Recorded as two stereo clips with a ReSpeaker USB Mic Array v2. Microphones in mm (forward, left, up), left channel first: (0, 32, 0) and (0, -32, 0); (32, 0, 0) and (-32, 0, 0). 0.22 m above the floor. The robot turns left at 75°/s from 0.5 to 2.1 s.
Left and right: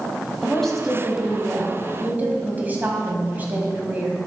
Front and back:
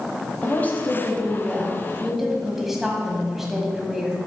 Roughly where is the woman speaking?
Ahead.